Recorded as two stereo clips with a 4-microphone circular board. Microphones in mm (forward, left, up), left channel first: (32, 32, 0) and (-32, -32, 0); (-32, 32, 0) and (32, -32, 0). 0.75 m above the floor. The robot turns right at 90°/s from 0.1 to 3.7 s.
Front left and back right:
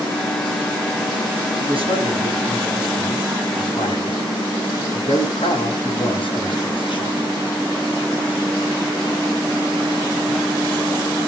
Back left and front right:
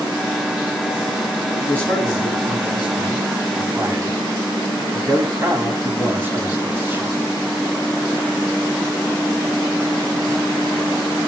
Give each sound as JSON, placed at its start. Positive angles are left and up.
{"t": 1.6, "sound": "a man speaking", "azimuth_deg": -170, "distance_m": 6.0}